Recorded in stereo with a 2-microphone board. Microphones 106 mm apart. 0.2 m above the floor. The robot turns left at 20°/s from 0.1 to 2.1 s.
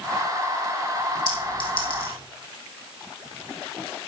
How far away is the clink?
About 5 m.